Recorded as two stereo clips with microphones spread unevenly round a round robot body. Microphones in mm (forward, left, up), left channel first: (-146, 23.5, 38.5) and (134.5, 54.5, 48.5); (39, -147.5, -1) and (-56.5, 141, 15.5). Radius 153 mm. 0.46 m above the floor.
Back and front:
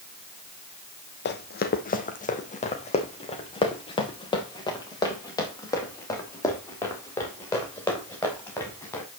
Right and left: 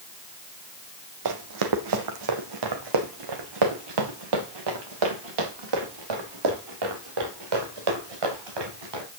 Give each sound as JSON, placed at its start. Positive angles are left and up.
{"t": 1.2, "sound": "running footsteps", "azimuth_deg": 135, "distance_m": 1.4}